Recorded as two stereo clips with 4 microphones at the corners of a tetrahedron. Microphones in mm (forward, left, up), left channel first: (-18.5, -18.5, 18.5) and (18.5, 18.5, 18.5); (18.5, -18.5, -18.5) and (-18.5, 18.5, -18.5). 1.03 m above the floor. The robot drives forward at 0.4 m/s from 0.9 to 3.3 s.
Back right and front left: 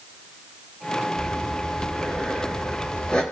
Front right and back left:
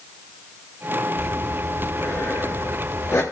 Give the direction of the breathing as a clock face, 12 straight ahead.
2 o'clock.